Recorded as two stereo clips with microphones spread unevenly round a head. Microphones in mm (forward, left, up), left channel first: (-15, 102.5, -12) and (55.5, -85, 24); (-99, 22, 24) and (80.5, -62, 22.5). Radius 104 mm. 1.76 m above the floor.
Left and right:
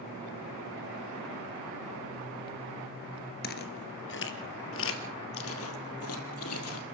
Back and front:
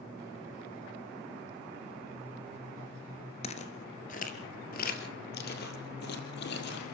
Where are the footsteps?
120° left, 2 m.